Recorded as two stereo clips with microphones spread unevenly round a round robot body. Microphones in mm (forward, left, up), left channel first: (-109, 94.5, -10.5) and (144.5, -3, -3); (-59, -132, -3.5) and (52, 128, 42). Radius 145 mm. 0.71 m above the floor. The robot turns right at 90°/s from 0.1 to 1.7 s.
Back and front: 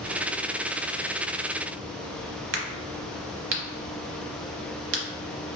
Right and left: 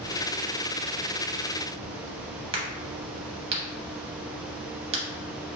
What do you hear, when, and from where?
2.5 s a crack: 10° left, 0.7 m